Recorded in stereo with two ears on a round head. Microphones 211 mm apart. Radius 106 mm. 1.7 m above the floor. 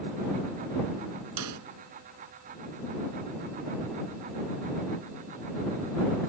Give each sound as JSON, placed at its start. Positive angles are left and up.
{"t": 1.4, "sound": "a snare drum", "side_deg": -85}